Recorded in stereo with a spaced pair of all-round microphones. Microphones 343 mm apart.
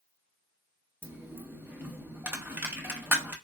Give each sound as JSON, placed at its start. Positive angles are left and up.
{"t": 1.0, "sound": "a dropped coin", "side_deg": -5, "distance_m": 0.7}